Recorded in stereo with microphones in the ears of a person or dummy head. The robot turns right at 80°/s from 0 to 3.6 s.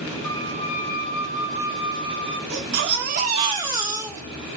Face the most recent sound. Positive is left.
turn(degrees=-20)